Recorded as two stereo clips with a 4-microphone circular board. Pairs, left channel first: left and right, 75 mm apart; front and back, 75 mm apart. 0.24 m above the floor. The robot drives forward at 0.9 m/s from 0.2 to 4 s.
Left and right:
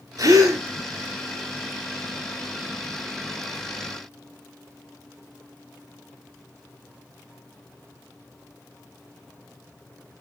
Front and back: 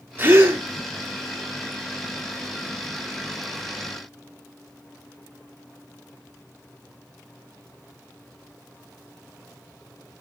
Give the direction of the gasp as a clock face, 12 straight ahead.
4 o'clock.